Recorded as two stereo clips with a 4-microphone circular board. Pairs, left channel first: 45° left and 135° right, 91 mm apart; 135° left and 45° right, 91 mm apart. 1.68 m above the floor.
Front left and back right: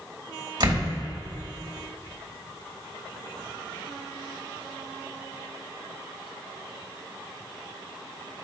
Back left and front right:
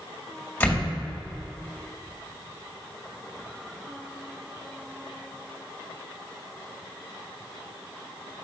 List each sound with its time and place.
0.6 s a door slam: 155° right, 2.5 m